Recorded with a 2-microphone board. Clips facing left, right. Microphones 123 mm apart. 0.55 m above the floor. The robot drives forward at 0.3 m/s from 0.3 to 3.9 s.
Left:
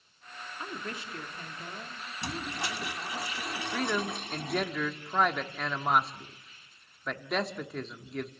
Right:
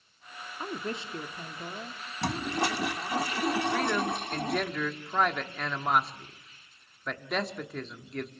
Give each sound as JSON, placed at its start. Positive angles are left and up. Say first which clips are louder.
{"t": 0.6, "sound": "a woman speaking", "louder": "right 5 dB", "side_deg": -30, "distance_m": 1.2}
{"t": 2.2, "sound": "a toilet flushing", "louder": "right 7 dB", "side_deg": -70, "distance_m": 0.8}
{"t": 3.7, "sound": "a man speaking", "louder": "right 3 dB", "side_deg": 5, "distance_m": 1.2}